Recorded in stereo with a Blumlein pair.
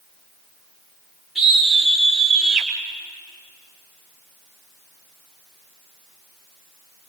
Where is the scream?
10° left, 4.5 m; by 2.7 s 10° right, 4.5 m.